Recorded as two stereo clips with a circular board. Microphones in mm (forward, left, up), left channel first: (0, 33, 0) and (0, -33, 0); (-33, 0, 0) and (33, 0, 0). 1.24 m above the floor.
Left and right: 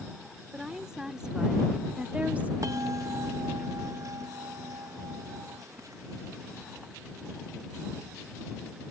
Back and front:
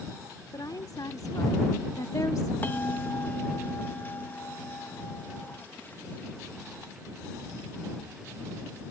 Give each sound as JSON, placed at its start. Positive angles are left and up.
{"t": 0.5, "sound": "a woman speaking", "azimuth_deg": -170}
{"t": 2.6, "sound": "a bell", "azimuth_deg": -120}